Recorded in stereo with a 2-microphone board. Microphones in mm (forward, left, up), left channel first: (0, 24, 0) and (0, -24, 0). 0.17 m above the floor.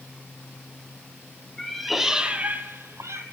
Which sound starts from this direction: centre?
A cat meowing, at 1.6 s.